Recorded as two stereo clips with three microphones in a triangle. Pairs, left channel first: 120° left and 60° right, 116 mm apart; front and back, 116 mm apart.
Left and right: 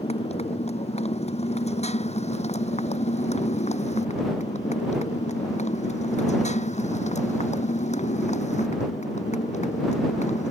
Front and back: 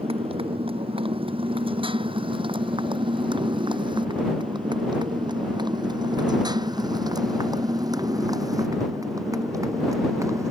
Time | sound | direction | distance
0.0 | a motorcycle | 145° left | ?